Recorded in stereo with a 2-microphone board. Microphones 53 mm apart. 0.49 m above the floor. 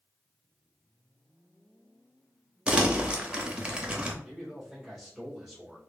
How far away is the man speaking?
About 2 m.